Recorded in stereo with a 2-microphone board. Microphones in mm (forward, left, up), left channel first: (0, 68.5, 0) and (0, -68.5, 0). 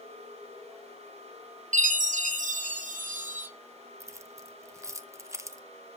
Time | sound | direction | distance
1.7 | a chime | 65° right (ahead or behind) | 1.1 m
4.0 | keys jangling | 20° right (ahead or behind) | 0.7 m